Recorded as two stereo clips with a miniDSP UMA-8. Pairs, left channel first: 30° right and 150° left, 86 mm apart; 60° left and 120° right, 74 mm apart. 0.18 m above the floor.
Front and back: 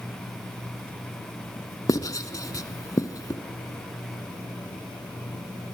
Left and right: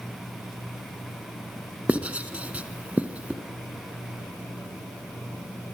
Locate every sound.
1.9 s writing: 55° right, 1.8 m